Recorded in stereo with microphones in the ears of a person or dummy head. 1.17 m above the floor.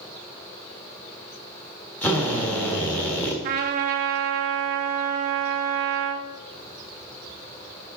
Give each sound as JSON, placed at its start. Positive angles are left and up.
{"t": 2.0, "sound": "a drill", "side_deg": 5, "distance_m": 1.3}
{"t": 3.4, "sound": "a trumpet", "side_deg": -40, "distance_m": 0.5}